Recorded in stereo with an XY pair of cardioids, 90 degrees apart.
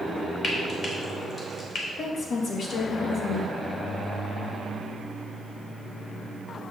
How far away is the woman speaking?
About 2.5 m.